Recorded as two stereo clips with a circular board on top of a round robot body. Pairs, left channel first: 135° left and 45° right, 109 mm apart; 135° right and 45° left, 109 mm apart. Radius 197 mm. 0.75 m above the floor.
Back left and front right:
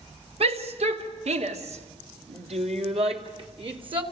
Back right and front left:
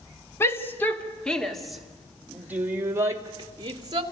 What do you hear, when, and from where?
0.4 s a shout: 70° right, 2.5 m; by 4.0 s 5° right, 3 m